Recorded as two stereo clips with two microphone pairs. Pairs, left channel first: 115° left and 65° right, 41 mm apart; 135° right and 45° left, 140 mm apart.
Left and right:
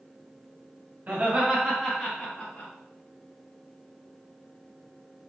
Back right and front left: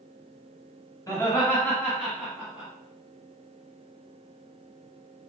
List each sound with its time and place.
1.1 s laughter: 80° right, 1.4 m; by 2.7 s 115° left, 1.3 m